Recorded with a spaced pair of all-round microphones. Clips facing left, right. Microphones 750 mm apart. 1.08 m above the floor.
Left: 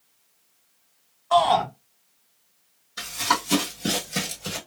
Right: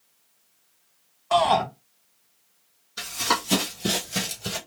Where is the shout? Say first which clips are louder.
Left 1 dB; 55° right (ahead or behind), 0.9 m.